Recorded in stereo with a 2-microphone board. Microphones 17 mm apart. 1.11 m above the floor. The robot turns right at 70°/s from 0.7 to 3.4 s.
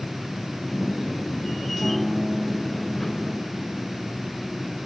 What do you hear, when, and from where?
1.8 s a piano: 145° right, 1.0 m; by 3.7 s 30° right, 1.0 m